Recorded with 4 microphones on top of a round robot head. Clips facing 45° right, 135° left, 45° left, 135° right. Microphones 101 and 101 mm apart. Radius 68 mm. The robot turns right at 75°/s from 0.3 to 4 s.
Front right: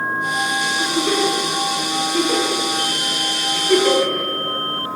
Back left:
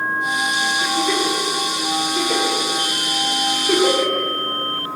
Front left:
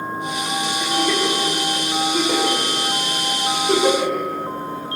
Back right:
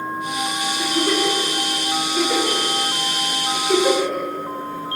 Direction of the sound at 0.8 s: 110° right.